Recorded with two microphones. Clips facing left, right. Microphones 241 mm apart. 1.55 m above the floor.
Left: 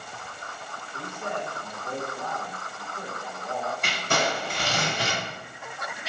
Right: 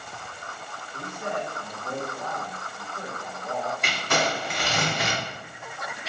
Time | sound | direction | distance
0.9 | a man speaking | 15° right (ahead or behind) | 2 m
3.8 | crumpling | 30° left (ahead or behind) | 1.8 m